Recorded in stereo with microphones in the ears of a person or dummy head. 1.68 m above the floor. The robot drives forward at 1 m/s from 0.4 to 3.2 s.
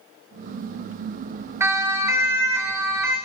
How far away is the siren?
About 2.5 m.